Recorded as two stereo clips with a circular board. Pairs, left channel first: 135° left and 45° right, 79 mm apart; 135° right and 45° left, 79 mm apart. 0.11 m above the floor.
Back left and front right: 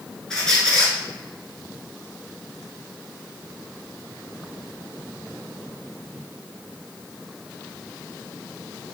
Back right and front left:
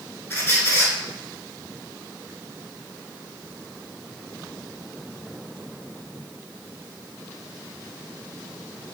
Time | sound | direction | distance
0.3 | a squeak | 155° right | 0.9 m